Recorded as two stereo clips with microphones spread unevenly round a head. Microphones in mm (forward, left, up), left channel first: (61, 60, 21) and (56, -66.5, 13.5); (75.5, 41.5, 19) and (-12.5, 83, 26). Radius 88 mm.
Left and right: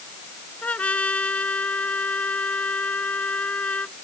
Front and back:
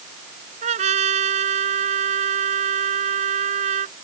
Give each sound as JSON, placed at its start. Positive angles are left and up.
{"t": 0.6, "sound": "a trumpet", "azimuth_deg": 170}